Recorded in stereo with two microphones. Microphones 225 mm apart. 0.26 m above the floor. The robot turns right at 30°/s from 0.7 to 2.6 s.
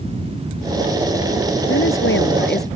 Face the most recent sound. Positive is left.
turn(degrees=45)  # may be behind; listen again after turning